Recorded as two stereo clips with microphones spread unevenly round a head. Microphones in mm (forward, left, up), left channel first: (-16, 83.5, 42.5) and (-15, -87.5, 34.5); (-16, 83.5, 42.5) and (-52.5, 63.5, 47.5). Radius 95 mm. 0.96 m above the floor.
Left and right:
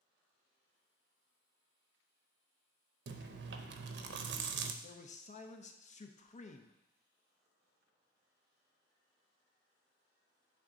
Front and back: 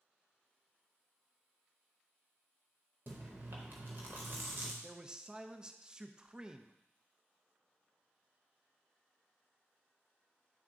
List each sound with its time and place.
3.1 s chewing: 100° right, 0.6 m
4.8 s a man speaking: 135° left, 0.6 m